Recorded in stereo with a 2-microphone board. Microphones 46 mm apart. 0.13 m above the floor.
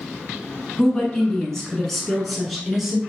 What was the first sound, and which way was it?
A woman speaking, 20° left (ahead or behind).